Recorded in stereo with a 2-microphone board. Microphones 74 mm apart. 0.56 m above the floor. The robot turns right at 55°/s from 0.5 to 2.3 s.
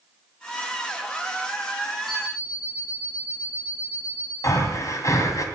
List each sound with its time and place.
2.1 s an alarm clock: 5° left (ahead or behind), 7 m; by 4.3 s 10° right (ahead or behind), 7 m
4.4 s breathing: 50° left (ahead or behind), 2 m